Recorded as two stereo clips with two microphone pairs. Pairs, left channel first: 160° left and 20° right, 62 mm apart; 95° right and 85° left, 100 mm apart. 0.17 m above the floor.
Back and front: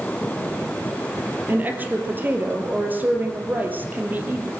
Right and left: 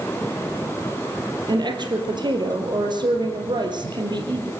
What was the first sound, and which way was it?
A woman speaking, 45° left.